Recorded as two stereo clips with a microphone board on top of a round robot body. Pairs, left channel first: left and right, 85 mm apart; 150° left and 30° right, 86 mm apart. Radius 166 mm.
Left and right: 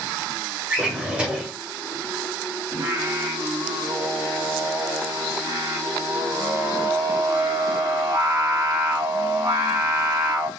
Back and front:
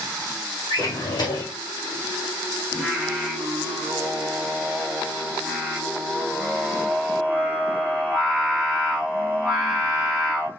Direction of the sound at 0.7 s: 170° right.